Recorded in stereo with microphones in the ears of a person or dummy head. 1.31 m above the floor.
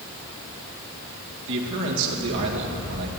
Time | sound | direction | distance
1.5 | a man speaking | 65° right (ahead or behind) | 2 m